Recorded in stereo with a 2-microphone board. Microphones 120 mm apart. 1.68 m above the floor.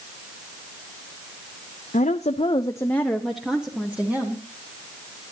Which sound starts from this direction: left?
A woman speaking, at 1.9 s.